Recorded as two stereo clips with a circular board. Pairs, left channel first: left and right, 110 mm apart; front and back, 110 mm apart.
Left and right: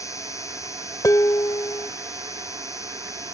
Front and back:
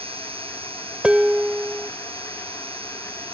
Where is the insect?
150° left.